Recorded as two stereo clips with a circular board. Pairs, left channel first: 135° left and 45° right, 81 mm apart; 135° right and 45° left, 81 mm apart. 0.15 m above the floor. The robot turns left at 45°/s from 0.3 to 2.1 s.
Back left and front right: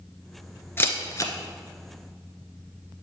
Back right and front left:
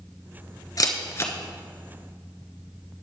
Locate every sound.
0.8 s a camera shutter: 165° right, 1.0 m; by 1.3 s 170° left, 1.0 m